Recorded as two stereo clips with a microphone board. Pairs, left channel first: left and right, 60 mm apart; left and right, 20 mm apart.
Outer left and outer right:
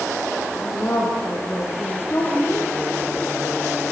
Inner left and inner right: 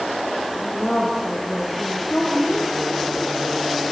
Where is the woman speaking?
40° left (ahead or behind), 6 m.